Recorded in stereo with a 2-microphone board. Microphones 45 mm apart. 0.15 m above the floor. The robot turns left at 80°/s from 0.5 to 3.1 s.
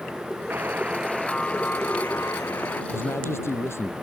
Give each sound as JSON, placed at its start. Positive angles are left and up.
{"t": 0.5, "sound": "a buzzer", "azimuth_deg": -125}
{"t": 2.9, "sound": "a man speaking", "side_deg": 70}